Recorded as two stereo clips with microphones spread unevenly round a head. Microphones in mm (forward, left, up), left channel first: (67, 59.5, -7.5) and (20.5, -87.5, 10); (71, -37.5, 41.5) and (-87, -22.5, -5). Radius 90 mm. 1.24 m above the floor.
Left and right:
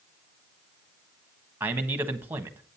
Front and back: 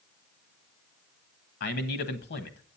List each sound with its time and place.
1.6 s a man speaking: 30° right, 1.4 m